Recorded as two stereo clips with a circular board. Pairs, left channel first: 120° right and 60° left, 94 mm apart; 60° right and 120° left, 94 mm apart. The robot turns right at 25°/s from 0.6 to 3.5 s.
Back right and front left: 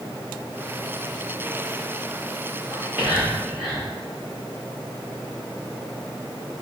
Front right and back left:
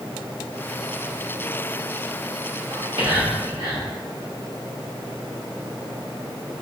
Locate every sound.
2.7 s whispering: 125° left, 1.7 m; by 3.9 s 145° left, 1.7 m